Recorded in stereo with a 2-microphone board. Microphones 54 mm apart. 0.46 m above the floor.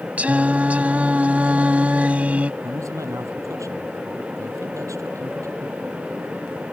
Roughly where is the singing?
Right.